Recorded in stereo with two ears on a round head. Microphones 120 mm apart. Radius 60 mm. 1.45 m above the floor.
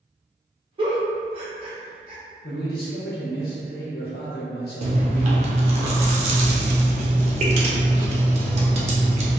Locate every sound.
0.8 s a giggle: 40° right (ahead or behind), 0.7 m
2.4 s a man speaking: 80° left, 0.9 m
4.8 s chewing: 50° right (ahead or behind), 0.6 m